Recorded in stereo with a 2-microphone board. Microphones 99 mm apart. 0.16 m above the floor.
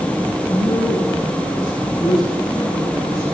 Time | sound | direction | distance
0.5 | a woman speaking | 40° left (ahead or behind) | 9.5 m